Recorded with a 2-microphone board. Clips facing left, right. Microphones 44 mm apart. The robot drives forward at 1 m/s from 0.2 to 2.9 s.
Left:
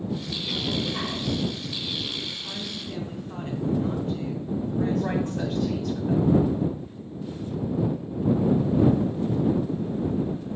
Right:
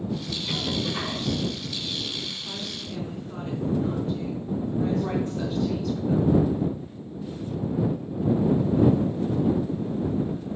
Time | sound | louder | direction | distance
0.5 | a cough | even | 10° right (ahead or behind) | 0.8 m
2.3 | a woman speaking | even | 65° left (ahead or behind) | 3 m
4.8 | a woman speaking | left 1 dB | 55° left (ahead or behind) | 1.9 m